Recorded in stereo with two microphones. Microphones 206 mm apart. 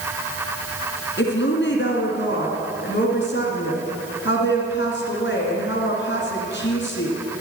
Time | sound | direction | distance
1.2 | a woman speaking | 65° left (ahead or behind) | 2.5 m